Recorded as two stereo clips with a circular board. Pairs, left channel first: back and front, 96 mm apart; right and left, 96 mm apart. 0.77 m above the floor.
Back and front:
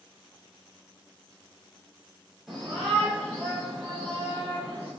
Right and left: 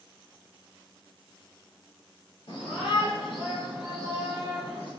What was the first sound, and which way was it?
A shout, 90° right.